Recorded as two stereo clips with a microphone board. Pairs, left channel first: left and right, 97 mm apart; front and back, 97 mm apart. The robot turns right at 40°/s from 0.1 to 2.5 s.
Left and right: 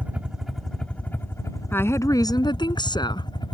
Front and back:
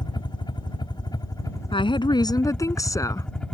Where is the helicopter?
20° right; by 3.5 s 80° left.